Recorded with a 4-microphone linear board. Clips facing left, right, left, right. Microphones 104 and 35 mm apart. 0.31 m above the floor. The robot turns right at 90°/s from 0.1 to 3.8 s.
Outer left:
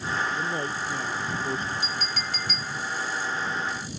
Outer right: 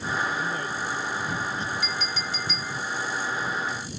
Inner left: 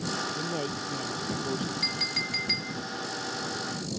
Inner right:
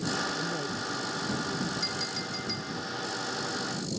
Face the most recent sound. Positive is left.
turn(degrees=-140)